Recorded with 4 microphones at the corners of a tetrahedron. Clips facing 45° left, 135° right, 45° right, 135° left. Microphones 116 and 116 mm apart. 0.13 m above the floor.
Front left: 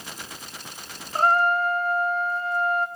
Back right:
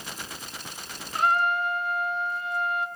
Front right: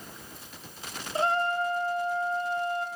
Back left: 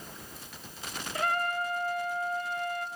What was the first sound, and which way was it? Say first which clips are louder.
A trumpet: front left 4 dB, front right 4 dB; 5° left.